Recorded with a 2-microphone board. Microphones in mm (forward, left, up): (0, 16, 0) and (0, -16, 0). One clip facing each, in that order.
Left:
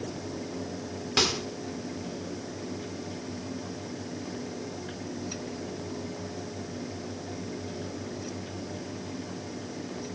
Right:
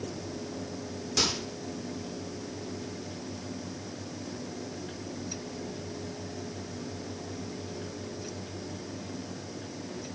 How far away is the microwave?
About 1.3 m.